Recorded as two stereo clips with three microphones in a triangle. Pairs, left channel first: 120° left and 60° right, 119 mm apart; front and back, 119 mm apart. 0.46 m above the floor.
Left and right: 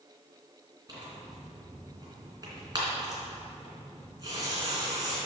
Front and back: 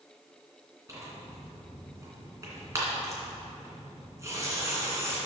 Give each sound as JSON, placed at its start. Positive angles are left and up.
{"t": 0.9, "sound": "tearing paper", "azimuth_deg": -115, "distance_m": 2.5}